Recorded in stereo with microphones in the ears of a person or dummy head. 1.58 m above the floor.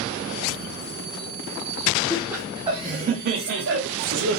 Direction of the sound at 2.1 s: 5° right (ahead or behind).